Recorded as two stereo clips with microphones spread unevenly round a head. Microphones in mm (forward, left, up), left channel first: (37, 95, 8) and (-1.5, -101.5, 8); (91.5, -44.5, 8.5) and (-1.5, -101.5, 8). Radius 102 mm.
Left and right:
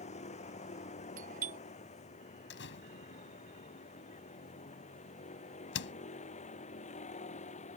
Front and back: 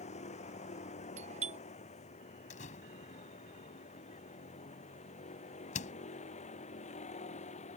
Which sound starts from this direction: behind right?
A doorbell, at 1.2 s.